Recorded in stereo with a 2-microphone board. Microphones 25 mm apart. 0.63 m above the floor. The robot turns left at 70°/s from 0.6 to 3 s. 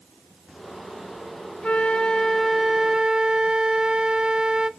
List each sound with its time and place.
1.6 s a flute: 65° left, 0.5 m; by 4.7 s 35° right, 0.5 m